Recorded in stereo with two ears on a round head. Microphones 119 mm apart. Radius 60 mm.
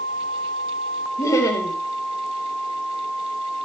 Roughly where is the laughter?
Left.